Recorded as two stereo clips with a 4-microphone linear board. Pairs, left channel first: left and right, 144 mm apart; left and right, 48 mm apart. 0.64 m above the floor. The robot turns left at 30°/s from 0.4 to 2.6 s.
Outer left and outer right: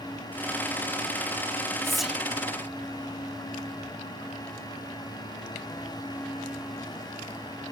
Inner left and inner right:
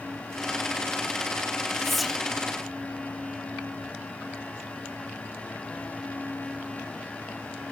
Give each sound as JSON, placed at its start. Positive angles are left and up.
{"t": 1.8, "sound": "whispering", "side_deg": 5, "distance_m": 1.1}